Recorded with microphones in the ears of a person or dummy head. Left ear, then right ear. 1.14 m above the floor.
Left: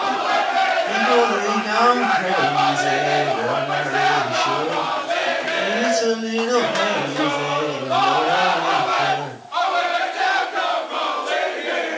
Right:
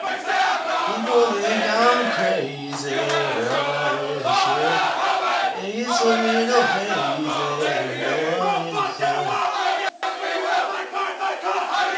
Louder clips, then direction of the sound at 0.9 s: Left 2 dB; 10° right (ahead or behind).